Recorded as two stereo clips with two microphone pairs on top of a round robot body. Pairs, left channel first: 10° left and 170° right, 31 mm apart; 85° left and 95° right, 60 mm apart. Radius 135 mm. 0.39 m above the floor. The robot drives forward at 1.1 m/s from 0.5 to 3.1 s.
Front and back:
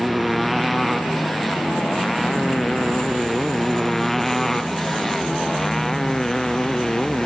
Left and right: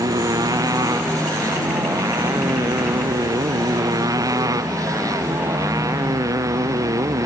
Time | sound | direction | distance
0.0 | a motorcycle | 85° right | ?